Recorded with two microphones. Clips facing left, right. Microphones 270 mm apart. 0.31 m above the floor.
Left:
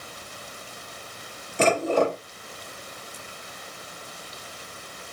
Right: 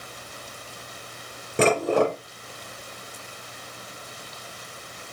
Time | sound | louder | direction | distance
1.6 | dishes clattering | right 2 dB | 65° right (ahead or behind) | 4 m